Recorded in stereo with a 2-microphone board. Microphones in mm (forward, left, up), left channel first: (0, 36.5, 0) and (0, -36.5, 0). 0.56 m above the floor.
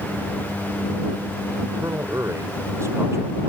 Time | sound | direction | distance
1.7 | a man speaking | 40° right (ahead or behind) | ?